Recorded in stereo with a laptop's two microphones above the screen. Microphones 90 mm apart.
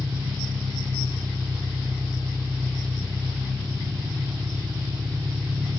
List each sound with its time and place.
0.0 s an engine running: 30° right (ahead or behind), 1.8 m